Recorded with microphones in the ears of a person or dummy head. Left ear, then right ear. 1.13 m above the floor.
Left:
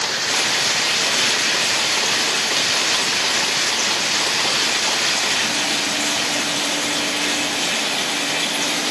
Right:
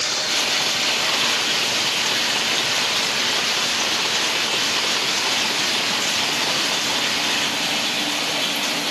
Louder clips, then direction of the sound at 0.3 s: Left 2 dB; 50° left (ahead or behind).